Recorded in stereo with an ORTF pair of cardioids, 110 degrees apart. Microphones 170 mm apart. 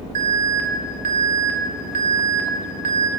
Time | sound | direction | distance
0.1 | an alarm | 55° right | 1.7 m